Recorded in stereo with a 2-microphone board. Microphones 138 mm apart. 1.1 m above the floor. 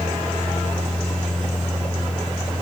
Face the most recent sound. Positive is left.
No sound to turn to.